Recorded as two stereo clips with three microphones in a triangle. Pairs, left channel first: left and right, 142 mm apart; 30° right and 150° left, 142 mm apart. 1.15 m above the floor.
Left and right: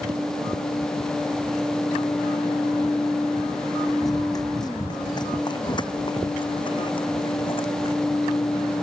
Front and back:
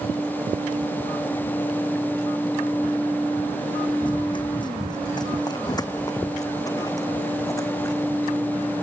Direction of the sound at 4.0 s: 25° left.